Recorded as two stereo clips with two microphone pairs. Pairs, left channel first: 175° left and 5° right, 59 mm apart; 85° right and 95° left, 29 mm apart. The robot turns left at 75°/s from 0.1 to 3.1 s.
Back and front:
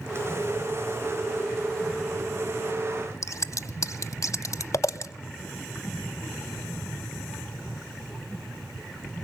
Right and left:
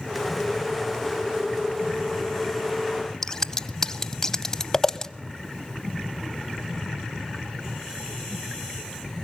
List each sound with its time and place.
3.2 s scissors: 155° right, 0.6 m